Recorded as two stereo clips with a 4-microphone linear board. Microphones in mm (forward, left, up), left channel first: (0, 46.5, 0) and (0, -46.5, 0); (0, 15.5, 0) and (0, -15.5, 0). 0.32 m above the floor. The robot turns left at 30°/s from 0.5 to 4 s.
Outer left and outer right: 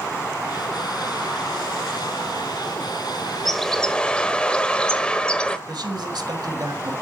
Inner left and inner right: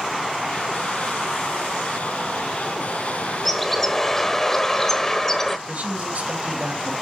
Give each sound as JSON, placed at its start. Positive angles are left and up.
{"t": 3.5, "sound": "a bird", "side_deg": 5, "distance_m": 1.2}
{"t": 5.7, "sound": "a man speaking", "side_deg": -50, "distance_m": 1.8}